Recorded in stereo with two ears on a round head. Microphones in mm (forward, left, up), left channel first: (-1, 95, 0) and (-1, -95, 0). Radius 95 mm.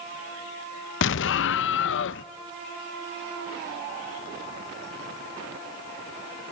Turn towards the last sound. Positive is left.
turn(degrees=60)  # may be behind; listen again after turning